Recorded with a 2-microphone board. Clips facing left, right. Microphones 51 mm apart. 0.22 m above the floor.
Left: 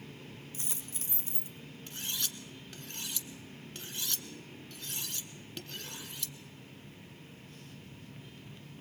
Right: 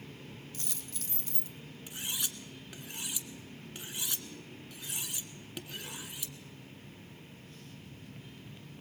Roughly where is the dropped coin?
Left.